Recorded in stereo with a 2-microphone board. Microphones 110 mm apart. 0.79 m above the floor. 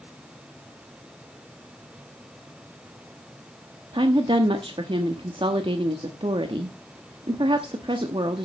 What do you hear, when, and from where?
3.9 s a woman speaking: 50° right (ahead or behind), 1.0 m